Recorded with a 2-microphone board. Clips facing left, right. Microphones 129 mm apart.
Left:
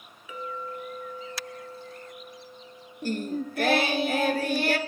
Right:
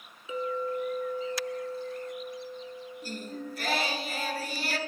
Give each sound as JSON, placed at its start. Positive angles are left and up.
{"t": 0.3, "sound": "a clink", "side_deg": -25, "distance_m": 1.0}
{"t": 3.0, "sound": "singing", "side_deg": 60, "distance_m": 0.5}